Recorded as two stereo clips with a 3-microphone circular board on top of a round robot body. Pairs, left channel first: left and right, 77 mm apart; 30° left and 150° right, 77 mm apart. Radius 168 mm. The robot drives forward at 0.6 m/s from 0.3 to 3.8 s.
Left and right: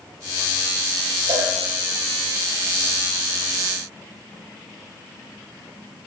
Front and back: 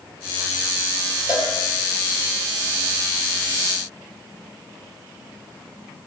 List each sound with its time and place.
1.3 s a cowbell: 80° right, 8 m